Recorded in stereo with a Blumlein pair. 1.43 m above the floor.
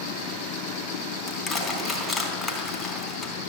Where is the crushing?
15° left, 3.5 m.